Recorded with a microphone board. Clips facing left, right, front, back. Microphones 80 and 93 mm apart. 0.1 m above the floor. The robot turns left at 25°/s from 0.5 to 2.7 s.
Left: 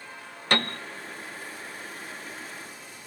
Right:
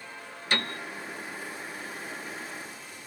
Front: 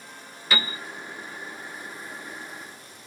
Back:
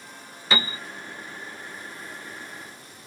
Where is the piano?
120° left, 0.6 m; by 0.8 s 110° left, 0.6 m.